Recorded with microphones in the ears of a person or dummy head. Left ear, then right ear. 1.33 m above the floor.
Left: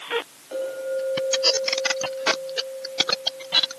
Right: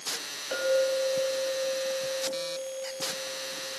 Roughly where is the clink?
Right.